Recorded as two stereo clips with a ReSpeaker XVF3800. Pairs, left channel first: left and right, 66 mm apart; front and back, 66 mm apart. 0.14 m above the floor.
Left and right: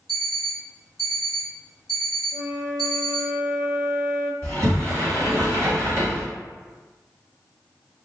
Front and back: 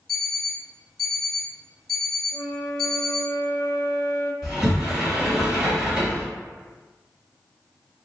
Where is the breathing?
No breathing in this recording.